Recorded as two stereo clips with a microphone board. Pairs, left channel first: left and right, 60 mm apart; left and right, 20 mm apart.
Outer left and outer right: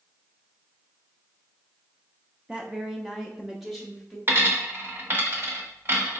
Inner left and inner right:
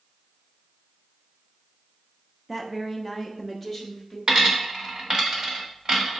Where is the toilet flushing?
I don't hear a toilet flushing.